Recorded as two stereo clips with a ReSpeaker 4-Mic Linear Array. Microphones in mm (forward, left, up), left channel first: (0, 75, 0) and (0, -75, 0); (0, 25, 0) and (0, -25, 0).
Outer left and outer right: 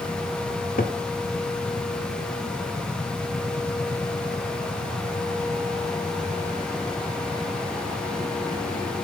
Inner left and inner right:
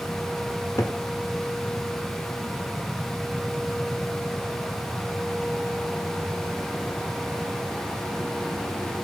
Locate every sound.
0.5 s a cupboard door: 70° left (ahead or behind), 1.9 m